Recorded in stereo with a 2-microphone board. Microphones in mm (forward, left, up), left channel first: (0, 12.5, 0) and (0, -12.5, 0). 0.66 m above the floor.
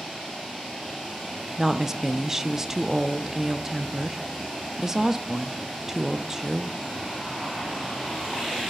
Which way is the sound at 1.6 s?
15° right (ahead or behind).